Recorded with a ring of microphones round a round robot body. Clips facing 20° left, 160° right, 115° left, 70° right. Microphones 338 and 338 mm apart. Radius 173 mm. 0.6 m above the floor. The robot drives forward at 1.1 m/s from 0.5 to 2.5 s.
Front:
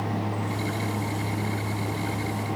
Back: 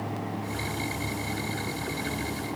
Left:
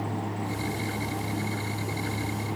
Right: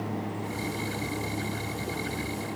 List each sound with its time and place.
Only background noise.